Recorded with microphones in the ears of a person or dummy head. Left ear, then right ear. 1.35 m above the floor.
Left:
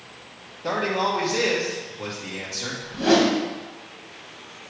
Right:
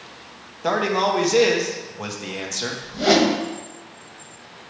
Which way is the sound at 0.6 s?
50° right (ahead or behind).